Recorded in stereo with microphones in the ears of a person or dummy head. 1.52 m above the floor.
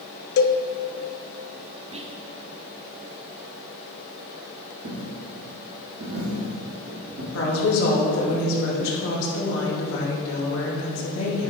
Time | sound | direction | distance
0.4 | a cowbell | 55° left (ahead or behind) | 0.5 m
1.9 | whispering | 25° right (ahead or behind) | 0.7 m
4.8 | a dropped coin | 60° right (ahead or behind) | 2.5 m
7.3 | a woman speaking | 80° left | 2.5 m